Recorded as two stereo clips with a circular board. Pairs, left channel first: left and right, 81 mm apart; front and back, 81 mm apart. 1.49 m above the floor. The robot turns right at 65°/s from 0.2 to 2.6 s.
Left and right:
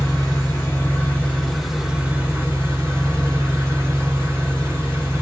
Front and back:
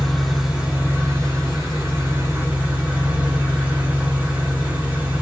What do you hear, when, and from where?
0.0 s an engine running: 85° left, 1.2 m; by 5.2 s 120° right, 1.2 m